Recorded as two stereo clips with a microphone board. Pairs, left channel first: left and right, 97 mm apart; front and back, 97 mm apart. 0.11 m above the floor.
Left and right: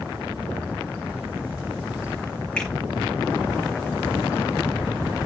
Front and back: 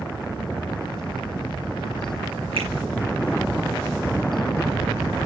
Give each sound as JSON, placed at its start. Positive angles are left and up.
{"t": 2.6, "sound": "a finger snap", "azimuth_deg": 170, "distance_m": 7.0}